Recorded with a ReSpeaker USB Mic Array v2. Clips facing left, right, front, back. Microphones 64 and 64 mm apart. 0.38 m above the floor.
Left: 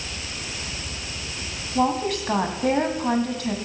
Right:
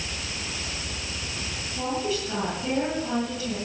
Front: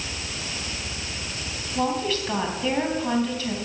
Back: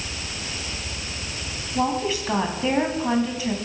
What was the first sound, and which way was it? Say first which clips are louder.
A woman speaking: left 6 dB, back 1 dB; 105° left.